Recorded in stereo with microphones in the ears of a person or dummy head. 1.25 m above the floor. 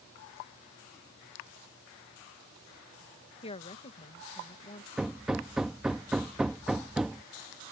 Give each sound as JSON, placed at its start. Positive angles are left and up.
{"t": 3.4, "sound": "a woman speaking", "side_deg": 30}
{"t": 5.0, "sound": "hammering", "side_deg": -5}